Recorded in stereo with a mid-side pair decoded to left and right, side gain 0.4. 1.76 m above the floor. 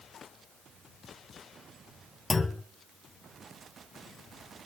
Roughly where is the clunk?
Ahead left.